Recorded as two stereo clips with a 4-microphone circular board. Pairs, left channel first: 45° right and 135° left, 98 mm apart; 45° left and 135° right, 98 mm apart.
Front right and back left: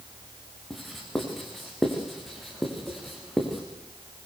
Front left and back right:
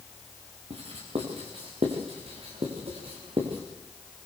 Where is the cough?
I don't hear a cough.